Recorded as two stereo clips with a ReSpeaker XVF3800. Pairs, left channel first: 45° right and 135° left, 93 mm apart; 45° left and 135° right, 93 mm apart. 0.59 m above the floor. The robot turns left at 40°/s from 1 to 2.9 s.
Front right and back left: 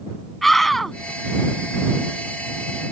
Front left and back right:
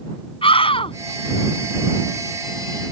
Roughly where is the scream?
Ahead left.